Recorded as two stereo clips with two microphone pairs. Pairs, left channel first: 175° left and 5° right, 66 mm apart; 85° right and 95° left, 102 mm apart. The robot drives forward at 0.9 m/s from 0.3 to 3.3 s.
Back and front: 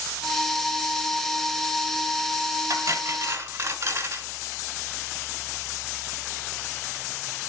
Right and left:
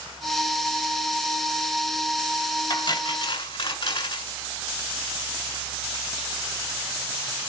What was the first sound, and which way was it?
Cutlery clinking, 45° right.